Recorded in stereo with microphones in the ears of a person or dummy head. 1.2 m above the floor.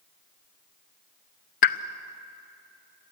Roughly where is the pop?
Left.